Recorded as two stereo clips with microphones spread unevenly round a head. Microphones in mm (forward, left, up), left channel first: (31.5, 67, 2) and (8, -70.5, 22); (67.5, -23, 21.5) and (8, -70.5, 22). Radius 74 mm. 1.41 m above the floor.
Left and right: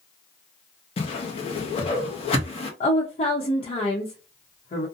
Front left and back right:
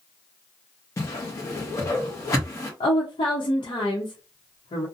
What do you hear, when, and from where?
1.0 s a whoosh: 60° left, 0.8 m
2.8 s a woman speaking: 35° left, 0.8 m